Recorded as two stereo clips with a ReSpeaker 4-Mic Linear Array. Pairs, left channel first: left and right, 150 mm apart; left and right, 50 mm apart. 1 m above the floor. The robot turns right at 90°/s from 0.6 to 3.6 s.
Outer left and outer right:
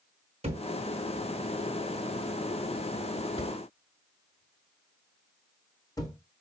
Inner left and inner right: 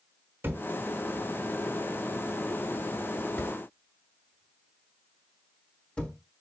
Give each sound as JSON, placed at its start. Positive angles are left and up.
{"t": 0.4, "sound": "a thud", "side_deg": -45, "distance_m": 0.9}